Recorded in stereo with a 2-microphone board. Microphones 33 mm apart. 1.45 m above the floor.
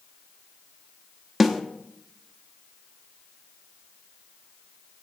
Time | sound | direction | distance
1.4 | a snare drum | 5° right (ahead or behind) | 0.9 m